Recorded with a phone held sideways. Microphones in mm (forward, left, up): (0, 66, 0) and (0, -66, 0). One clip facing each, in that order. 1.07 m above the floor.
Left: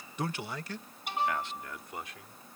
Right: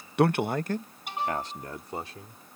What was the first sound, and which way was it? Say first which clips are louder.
A man speaking: right 12 dB; 60° right (ahead or behind).